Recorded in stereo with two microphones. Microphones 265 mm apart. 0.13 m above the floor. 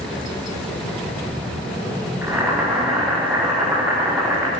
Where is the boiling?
10° right (ahead or behind), 7.5 m.